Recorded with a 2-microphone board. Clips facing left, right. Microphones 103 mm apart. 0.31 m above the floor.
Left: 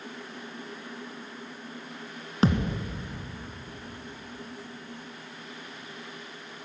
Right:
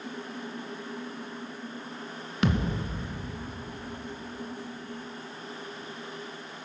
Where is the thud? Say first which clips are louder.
Left 2 dB; 35° left (ahead or behind), 1.3 m.